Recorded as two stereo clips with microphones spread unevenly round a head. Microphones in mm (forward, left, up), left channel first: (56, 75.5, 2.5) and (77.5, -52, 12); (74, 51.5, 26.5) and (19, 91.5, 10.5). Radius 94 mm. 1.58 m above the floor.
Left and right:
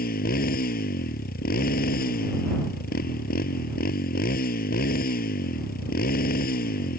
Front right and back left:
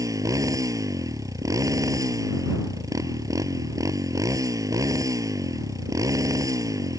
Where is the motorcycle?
105° left.